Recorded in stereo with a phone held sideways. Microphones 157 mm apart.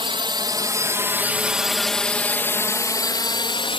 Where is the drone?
35° right (ahead or behind); by 3.8 s 35° left (ahead or behind).